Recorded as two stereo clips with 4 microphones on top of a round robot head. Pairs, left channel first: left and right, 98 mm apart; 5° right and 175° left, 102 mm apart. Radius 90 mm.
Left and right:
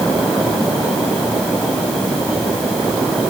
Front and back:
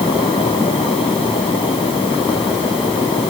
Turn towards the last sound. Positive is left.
No sound to turn to.